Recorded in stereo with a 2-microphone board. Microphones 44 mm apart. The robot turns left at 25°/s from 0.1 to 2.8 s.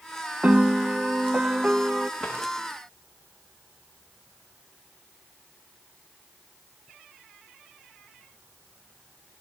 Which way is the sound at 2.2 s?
15° left (ahead or behind).